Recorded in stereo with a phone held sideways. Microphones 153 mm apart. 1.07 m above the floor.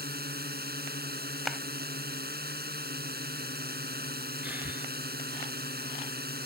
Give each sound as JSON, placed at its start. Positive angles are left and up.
{"t": 0.0, "sound": "a drone", "side_deg": -75}
{"t": 1.5, "sound": "a clap", "side_deg": 0}
{"t": 4.4, "sound": "breathing", "side_deg": -10}